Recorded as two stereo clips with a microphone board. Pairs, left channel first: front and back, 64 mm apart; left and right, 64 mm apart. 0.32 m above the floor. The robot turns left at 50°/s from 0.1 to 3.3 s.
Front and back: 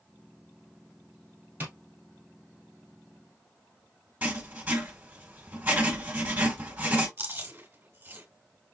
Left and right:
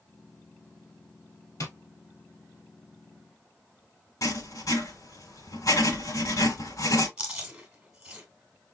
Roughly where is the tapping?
Behind left.